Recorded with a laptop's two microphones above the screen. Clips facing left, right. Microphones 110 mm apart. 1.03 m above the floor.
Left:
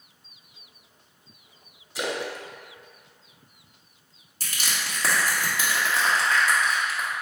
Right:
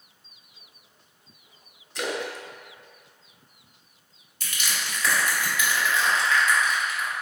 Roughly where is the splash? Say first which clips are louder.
Even; centre.